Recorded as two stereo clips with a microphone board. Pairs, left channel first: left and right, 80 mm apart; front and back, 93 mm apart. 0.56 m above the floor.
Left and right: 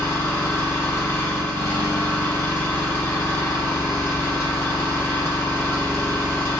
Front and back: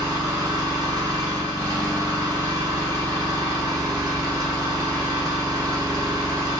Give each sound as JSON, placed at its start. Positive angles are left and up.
{"t": 0.0, "sound": "an engine running", "azimuth_deg": 140, "distance_m": 1.0}